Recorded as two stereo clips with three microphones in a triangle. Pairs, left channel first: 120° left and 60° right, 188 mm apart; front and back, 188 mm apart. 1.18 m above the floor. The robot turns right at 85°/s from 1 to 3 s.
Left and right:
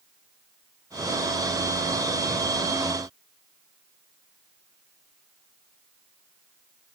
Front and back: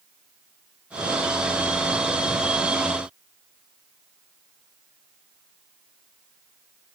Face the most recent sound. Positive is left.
No sound to turn to.